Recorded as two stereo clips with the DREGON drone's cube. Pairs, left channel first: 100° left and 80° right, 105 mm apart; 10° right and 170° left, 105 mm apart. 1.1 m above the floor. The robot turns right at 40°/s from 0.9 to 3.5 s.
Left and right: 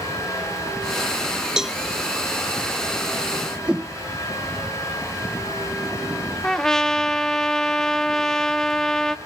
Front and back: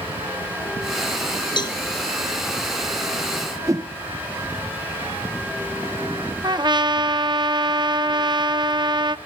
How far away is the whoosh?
About 0.6 m.